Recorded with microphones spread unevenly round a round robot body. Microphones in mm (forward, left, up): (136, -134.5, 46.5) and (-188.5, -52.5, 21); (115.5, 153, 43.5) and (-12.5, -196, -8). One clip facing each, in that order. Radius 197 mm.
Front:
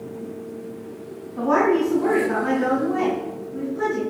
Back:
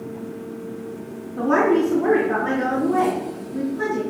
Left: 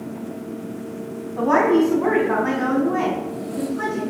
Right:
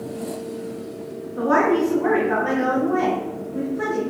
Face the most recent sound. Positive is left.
turn(degrees=55)